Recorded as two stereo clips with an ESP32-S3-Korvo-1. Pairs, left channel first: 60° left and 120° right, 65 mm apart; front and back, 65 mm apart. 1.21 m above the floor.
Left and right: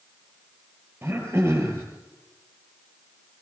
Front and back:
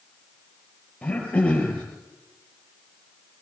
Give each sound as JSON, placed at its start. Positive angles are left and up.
{"t": 1.0, "sound": "throat clearing", "azimuth_deg": -70, "distance_m": 7.0}